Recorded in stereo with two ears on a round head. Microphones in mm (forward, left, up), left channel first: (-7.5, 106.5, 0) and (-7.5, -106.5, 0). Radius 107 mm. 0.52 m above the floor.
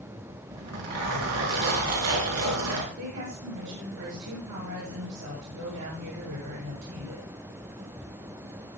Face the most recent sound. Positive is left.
turn(degrees=-80)